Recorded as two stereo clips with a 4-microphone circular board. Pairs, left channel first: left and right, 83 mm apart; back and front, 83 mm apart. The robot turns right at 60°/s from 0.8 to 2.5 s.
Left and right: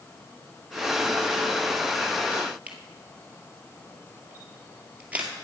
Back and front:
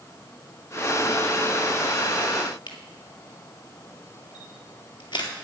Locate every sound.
2.7 s a camera shutter: 160° right, 1.9 m